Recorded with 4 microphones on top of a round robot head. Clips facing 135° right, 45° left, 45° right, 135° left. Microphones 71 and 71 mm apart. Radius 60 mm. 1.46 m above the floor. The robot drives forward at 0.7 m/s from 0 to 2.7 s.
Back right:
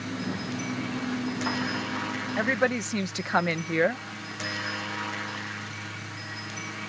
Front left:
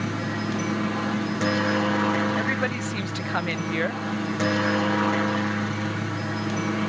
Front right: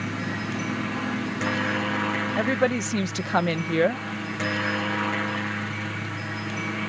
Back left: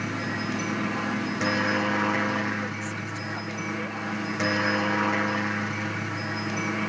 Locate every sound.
0.0 s a helicopter: 50° left; by 6.9 s 60° left
2.4 s a woman speaking: 55° right; by 4.0 s 65° right